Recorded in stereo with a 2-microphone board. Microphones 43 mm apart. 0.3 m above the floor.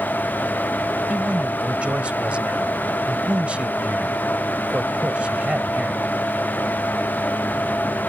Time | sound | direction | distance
1.1 | a man speaking | 30° right (ahead or behind) | ?